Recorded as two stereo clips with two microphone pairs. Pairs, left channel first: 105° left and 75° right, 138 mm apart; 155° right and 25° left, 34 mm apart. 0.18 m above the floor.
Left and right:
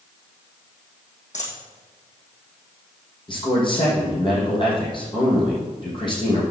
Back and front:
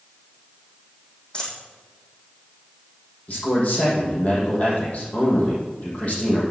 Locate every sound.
1.3 s a dropped coin: 140° left, 3.5 m
3.3 s a man speaking: 160° left, 6 m